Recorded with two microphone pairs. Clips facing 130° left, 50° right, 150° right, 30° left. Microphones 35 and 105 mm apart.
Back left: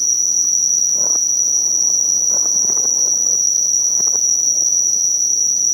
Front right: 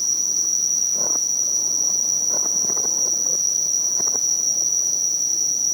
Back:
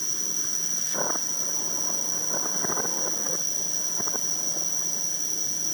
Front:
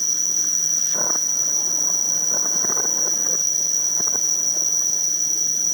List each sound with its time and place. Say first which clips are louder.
0.0 s an insect: back left 5 dB, front 1 dB; 20° left